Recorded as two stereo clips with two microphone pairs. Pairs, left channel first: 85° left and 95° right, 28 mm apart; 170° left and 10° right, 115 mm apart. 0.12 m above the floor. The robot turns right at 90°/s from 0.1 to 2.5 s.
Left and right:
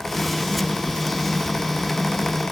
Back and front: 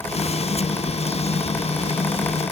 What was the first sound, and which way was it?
Only background noise.